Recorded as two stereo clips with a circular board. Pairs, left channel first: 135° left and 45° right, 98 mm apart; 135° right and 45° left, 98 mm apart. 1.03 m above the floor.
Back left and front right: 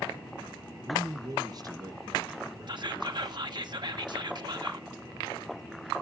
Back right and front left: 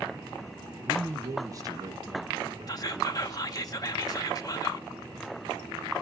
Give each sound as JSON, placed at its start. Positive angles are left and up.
{"t": 0.8, "sound": "a man speaking", "azimuth_deg": -15, "distance_m": 0.6}
{"t": 2.7, "sound": "whispering", "azimuth_deg": -85, "distance_m": 1.2}